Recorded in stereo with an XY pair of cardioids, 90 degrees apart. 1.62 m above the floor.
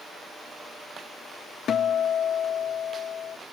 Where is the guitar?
65° left.